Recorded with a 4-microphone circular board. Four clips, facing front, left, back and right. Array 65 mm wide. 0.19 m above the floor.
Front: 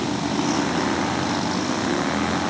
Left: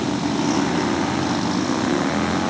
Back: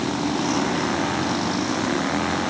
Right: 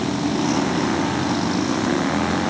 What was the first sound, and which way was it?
Only background noise.